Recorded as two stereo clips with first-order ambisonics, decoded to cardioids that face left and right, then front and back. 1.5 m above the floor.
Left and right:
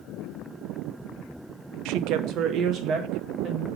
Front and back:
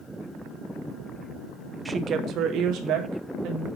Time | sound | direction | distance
1.9 | a woman speaking | 95° right | 0.6 m